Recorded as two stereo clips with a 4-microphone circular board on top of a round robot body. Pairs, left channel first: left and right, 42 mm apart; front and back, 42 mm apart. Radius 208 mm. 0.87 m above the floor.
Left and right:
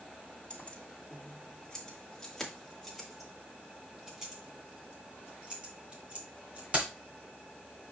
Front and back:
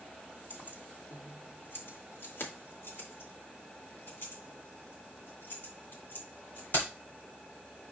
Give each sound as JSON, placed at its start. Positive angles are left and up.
{"t": 0.5, "sound": "keys jangling", "azimuth_deg": 30, "distance_m": 2.5}